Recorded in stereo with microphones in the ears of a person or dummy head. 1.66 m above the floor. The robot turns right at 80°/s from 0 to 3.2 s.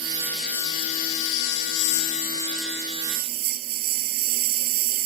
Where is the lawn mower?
30° right; by 5.1 s 135° right.